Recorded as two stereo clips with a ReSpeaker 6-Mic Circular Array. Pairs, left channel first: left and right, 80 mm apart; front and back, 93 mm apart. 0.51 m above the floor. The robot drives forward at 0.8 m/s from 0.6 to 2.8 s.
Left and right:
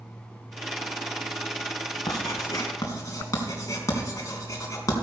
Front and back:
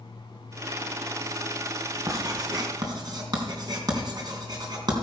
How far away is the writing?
About 3 m.